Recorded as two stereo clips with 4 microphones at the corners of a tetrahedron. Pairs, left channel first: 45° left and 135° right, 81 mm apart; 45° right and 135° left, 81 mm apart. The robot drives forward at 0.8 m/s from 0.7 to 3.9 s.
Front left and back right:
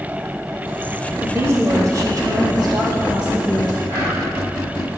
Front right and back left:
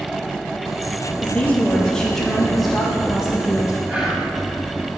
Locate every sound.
1.2 s a woman speaking: 90° right, 1.6 m; by 3.8 s 155° right, 2.5 m
3.9 s whispering: 165° right, 2 m